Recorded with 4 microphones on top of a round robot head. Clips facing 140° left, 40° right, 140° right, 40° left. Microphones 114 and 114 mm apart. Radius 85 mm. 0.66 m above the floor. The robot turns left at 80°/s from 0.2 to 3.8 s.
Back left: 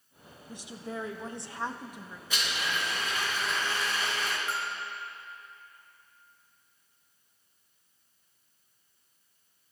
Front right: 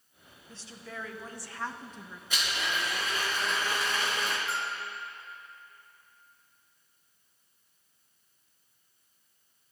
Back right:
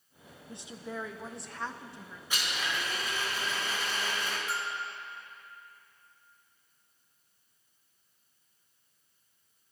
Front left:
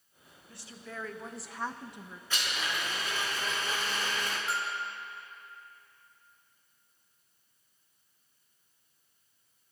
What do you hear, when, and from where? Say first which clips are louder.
0.5 s a woman speaking: back left 6 dB, back right 5 dB; 160° right, 0.9 m; by 2.2 s 60° left, 0.9 m
2.3 s a blender: even, even; 145° left, 3.5 m; by 4.4 s 25° left, 3.5 m
4.5 s a bell: even, front left 1 dB; 95° left, 3 m